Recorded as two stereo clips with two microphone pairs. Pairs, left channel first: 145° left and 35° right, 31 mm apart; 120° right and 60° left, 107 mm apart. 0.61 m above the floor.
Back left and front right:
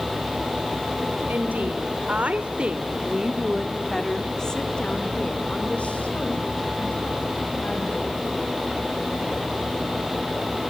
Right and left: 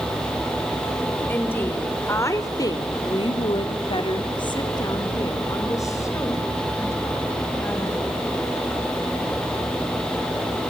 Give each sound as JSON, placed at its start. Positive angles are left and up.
{"t": 1.3, "sound": "a woman speaking", "azimuth_deg": -50, "distance_m": 3.0}